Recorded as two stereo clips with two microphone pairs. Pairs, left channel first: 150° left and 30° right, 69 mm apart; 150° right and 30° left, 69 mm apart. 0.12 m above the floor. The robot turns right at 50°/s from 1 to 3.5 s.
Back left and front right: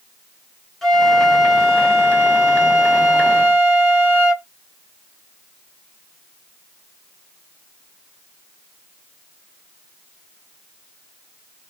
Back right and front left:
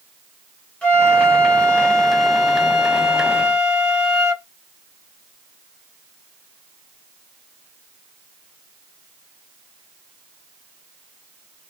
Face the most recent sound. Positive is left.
turn(degrees=-5)